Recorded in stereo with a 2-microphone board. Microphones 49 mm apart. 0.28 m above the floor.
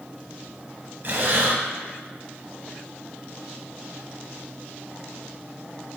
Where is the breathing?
50° right (ahead or behind), 0.7 m.